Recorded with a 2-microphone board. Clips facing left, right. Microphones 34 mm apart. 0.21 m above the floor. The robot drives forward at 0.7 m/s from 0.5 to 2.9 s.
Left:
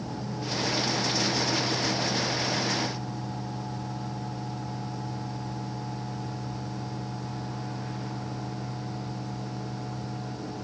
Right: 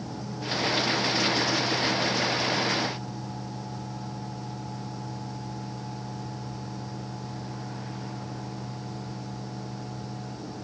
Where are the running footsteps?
I don't hear running footsteps.